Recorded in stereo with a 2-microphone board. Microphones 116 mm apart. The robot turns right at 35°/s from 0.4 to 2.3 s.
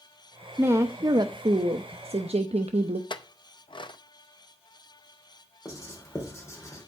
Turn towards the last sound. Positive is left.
turn(degrees=25)  # may be behind; listen again after turning